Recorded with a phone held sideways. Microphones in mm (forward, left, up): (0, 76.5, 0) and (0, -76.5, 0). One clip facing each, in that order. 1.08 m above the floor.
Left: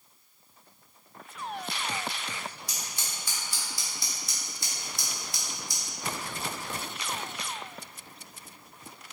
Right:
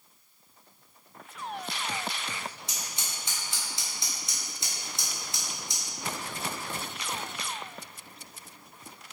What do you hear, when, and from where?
2.7 s scissors: 25° right (ahead or behind), 1.7 m